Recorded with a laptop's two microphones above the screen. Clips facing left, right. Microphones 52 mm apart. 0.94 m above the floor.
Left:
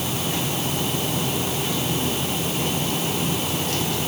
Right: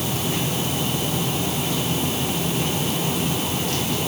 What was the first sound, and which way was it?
Only background noise.